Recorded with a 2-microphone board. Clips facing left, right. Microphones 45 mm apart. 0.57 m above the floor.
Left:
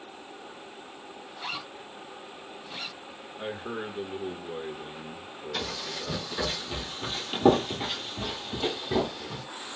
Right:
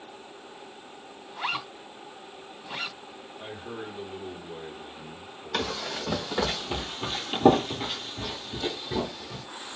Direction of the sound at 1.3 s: 50° right (ahead or behind).